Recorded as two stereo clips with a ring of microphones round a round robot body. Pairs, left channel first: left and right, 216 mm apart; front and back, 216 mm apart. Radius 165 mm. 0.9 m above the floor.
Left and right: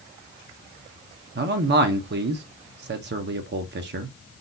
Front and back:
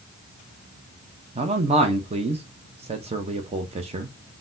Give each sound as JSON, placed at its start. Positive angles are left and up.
{"t": 1.4, "sound": "a man speaking", "azimuth_deg": -120, "distance_m": 0.6}